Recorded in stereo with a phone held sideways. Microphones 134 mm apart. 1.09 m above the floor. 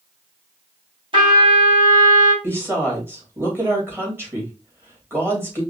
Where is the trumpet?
45° right (ahead or behind), 3 m.